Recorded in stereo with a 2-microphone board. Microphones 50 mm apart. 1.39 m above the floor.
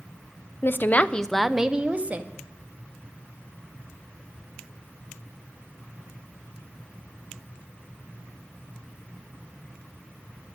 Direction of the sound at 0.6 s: 50° left (ahead or behind).